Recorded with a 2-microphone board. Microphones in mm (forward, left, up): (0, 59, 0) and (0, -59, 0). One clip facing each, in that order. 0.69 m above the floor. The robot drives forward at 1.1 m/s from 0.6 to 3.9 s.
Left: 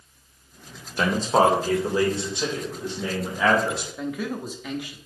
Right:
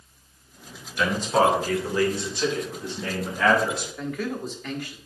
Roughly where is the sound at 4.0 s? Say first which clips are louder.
Even; centre.